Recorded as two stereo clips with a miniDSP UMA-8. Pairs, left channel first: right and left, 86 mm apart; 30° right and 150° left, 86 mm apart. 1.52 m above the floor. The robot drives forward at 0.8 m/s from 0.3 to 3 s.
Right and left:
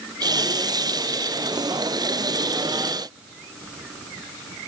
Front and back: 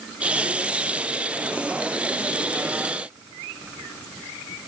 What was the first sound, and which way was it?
Only background noise.